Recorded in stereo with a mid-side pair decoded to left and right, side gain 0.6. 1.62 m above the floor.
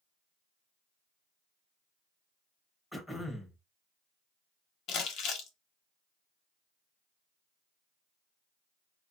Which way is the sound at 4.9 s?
55° left.